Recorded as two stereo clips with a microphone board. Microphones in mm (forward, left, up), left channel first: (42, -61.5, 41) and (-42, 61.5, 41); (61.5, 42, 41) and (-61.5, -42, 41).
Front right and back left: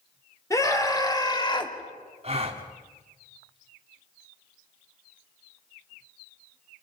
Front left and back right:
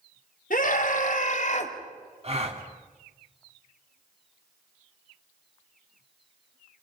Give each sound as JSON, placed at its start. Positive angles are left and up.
{"t": 0.5, "sound": "a scream", "azimuth_deg": 10, "distance_m": 3.5}
{"t": 2.2, "sound": "a gasp", "azimuth_deg": 170, "distance_m": 2.0}